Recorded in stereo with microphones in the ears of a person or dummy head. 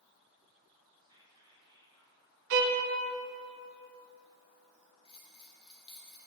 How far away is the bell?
About 0.5 m.